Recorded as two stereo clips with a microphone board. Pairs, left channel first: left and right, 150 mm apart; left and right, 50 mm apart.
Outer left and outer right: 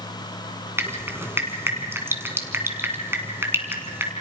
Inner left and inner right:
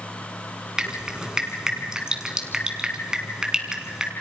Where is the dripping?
15° right (ahead or behind), 2.5 m.